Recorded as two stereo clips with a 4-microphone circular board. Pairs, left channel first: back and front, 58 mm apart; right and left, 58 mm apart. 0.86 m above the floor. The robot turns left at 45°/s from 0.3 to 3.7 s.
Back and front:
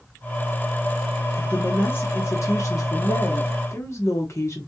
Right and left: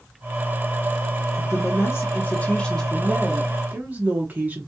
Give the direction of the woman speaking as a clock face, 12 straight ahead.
4 o'clock.